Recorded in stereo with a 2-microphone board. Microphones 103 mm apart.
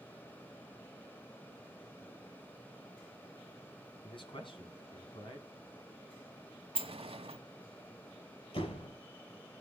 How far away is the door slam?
About 6 m.